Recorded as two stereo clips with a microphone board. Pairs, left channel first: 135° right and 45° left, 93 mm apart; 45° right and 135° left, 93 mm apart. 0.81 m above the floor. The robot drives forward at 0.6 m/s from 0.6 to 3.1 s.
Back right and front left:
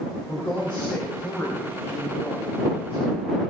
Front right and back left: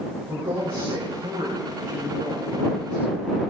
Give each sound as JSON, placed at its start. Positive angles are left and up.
{"t": 0.3, "sound": "a woman speaking", "azimuth_deg": 150, "distance_m": 5.0}